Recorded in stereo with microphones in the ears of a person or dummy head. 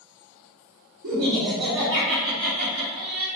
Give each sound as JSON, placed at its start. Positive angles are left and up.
{"t": 1.0, "sound": "laughter", "side_deg": -70, "distance_m": 1.0}